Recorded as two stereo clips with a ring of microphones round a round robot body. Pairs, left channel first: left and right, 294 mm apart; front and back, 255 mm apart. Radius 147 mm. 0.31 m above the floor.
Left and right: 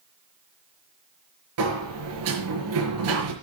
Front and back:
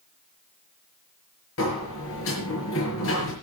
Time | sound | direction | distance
1.6 | a sliding door | 50° right | 5 m